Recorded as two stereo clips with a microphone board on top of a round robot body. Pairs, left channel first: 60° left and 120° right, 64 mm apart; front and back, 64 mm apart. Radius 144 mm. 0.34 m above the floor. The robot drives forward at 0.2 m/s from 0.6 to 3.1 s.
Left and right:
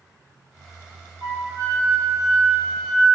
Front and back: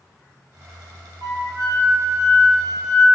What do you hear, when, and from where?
1.2 s a flute: 155° right, 5.5 m